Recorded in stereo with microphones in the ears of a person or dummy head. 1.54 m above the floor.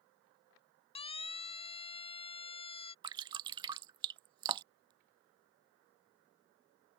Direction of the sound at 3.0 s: 20° right (ahead or behind).